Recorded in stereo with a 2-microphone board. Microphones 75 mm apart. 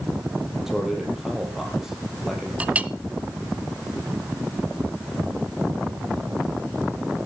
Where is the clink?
20° right (ahead or behind), 0.6 m.